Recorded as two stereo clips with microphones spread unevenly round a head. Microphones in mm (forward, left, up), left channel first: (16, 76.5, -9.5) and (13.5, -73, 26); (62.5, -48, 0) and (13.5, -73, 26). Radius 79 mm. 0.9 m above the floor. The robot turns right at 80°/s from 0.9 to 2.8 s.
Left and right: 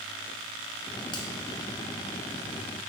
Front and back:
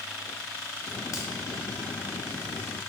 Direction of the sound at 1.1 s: 30° left.